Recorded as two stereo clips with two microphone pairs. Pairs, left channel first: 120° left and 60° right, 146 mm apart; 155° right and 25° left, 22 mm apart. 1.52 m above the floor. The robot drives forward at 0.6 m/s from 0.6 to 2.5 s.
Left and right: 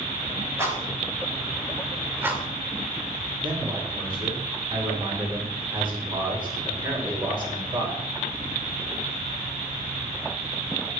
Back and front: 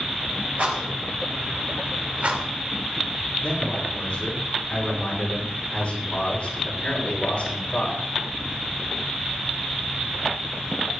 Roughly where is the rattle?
Ahead.